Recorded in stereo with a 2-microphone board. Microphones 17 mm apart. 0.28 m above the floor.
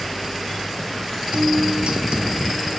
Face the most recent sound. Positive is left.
turn(degrees=-80)